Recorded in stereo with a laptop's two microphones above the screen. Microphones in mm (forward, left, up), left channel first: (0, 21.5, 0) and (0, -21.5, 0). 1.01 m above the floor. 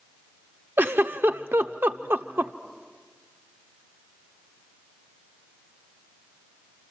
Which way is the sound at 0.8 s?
60° right (ahead or behind).